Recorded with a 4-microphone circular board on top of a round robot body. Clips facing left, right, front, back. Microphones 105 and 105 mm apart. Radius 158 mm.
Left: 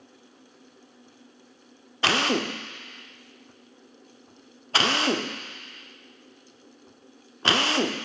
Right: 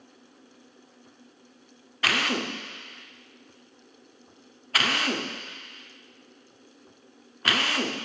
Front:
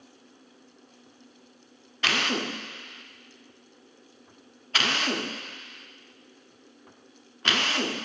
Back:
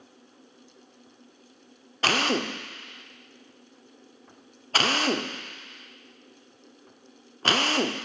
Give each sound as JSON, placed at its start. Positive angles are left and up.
{"t": 2.0, "sound": "a drill", "azimuth_deg": 145, "distance_m": 0.8}